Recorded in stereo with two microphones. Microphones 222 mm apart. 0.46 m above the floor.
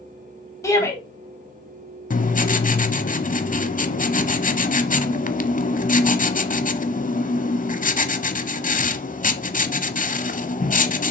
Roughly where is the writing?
Left.